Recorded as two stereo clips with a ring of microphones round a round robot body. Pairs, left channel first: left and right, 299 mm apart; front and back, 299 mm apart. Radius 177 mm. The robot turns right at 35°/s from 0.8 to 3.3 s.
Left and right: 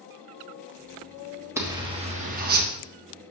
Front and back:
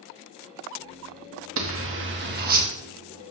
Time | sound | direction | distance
1.6 | a zipper | 170° right | 1.2 m